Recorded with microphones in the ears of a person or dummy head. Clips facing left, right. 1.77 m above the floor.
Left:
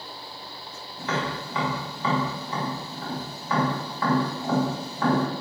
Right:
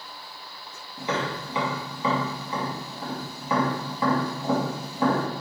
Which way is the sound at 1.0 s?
15° right (ahead or behind).